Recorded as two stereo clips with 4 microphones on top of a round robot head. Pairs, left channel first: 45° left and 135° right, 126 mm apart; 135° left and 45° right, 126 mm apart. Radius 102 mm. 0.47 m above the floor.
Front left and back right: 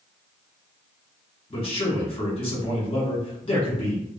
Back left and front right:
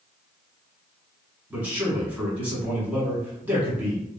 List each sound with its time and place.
1.5 s a man speaking: 20° left, 1.7 m